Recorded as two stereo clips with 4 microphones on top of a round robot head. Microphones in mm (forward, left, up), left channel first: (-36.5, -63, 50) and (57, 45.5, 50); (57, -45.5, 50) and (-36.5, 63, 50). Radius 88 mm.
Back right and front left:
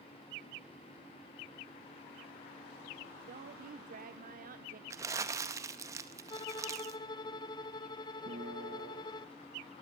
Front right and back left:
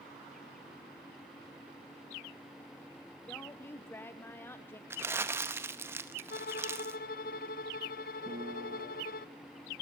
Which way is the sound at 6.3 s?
75° right.